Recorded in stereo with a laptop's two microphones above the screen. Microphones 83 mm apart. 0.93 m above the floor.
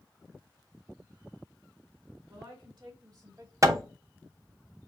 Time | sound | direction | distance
2.3 | a woman speaking | 75° right (ahead or behind) | 2.5 m
3.6 | hammering | 40° right (ahead or behind) | 0.7 m